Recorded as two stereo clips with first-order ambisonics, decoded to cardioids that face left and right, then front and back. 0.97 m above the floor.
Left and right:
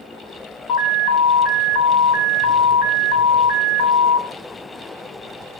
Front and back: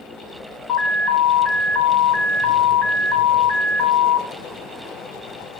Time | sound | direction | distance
0.7 | an alarm | 70° left | 5 m